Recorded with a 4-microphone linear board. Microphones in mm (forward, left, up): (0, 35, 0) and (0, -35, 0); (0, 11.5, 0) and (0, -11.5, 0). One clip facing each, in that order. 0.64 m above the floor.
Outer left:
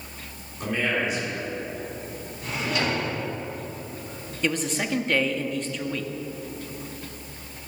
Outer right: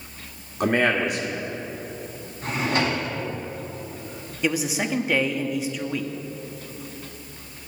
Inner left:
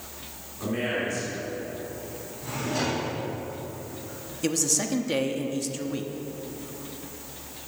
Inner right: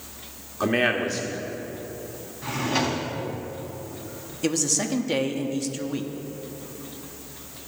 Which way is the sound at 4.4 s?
10° right (ahead or behind).